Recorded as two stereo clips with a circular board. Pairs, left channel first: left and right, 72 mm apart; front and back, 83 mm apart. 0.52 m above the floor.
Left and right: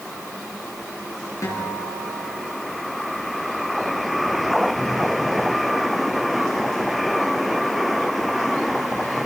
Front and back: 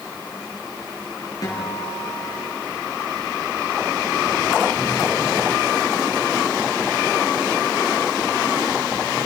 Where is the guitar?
45° left, 6.5 m.